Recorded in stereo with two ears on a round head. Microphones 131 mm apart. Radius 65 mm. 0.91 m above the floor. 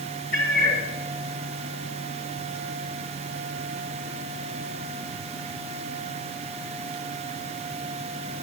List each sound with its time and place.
0.3 s a cat meowing: 70° left (ahead or behind), 3 m